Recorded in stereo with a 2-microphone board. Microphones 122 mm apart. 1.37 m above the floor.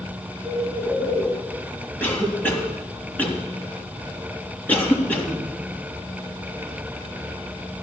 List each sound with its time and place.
0.4 s a bird: 15° right (ahead or behind), 9 m
2.0 s a cough: 15° left (ahead or behind), 3.5 m